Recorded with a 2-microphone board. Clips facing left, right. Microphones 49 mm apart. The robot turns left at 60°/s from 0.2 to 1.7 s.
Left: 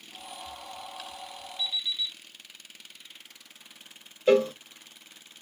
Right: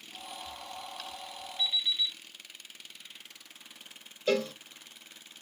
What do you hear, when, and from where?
1.6 s an alarm clock: 40° right (ahead or behind), 1.4 m; by 2.2 s 35° right (ahead or behind), 1.4 m
4.3 s a cowbell: 20° left (ahead or behind), 0.6 m